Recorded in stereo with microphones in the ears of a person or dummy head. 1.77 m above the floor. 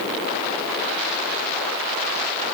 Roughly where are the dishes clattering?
No dishes clattering in this recording.